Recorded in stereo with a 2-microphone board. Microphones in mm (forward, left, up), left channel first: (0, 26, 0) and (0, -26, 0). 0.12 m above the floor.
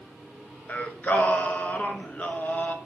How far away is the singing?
About 0.9 m.